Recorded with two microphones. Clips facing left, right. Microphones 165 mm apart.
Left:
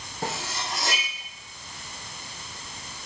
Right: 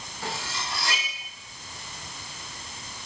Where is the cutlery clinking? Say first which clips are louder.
Left 3 dB; 45° left (ahead or behind), 4 m.